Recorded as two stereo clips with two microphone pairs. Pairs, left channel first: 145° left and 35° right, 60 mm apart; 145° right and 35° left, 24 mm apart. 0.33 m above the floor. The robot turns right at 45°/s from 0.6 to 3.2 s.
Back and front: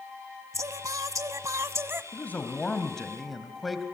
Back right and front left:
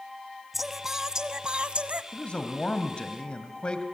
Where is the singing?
50° right, 0.8 m; by 2.0 s 15° left, 0.8 m.